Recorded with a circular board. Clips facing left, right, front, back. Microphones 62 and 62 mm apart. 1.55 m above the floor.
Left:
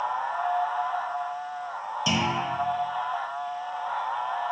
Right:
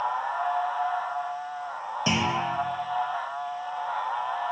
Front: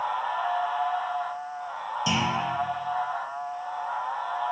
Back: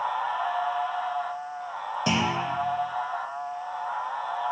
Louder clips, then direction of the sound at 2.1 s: Right 1 dB, back 1 dB; 145° right.